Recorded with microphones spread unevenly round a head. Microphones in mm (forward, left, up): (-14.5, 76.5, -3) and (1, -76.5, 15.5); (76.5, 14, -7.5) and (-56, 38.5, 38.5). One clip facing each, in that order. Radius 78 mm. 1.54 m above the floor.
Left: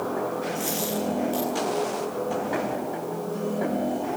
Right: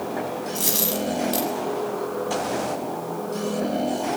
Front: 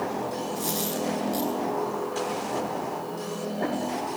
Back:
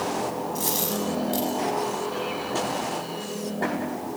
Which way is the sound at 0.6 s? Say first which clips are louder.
Right 1 dB, back 1 dB; 125° right.